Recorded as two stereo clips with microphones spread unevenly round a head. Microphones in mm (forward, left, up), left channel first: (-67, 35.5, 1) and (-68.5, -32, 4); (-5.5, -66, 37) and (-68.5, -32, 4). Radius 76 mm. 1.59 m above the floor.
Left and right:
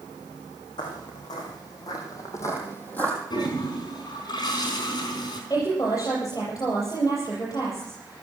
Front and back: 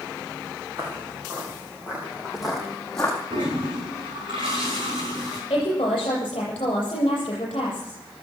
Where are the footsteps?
70° left, 3.5 m; by 3.2 s 10° left, 2 m.